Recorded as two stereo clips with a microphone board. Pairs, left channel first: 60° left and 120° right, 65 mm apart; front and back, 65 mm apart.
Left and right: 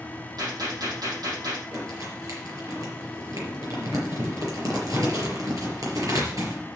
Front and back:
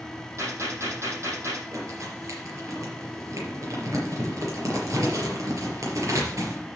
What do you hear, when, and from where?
0.4 s a gunshot: 135° right, 7 m
1.7 s crumpling: 145° right, 5 m